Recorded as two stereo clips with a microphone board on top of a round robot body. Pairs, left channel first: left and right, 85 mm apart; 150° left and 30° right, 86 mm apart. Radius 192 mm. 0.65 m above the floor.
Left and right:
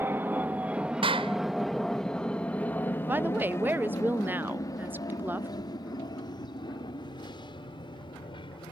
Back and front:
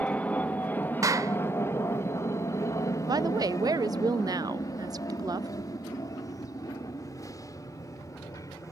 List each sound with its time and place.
0.0 s an aircraft: 140° right; by 8.7 s 100° left
1.0 s a clap: 80° right
3.1 s a woman speaking: 30° right